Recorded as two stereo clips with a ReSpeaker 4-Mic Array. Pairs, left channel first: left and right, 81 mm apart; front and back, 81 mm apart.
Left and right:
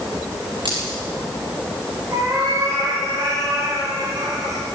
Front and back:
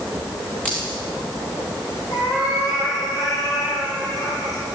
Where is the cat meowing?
40° right, 8.5 m.